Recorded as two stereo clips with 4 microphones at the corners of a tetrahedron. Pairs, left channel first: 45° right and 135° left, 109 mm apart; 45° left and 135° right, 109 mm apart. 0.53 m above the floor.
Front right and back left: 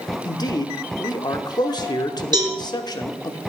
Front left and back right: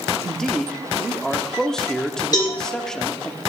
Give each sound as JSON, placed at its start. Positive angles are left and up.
{"t": 0.2, "sound": "a man speaking", "azimuth_deg": -35, "distance_m": 0.8}
{"t": 2.3, "sound": "a cowbell", "azimuth_deg": 95, "distance_m": 2.5}